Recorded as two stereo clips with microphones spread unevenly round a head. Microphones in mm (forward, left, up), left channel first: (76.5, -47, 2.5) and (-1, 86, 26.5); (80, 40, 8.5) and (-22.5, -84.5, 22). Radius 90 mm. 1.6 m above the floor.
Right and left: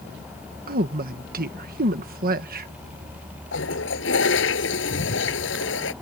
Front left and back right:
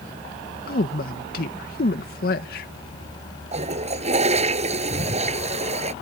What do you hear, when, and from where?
0.7 s a woman speaking: 95° left
3.5 s a toilet flushing: 85° right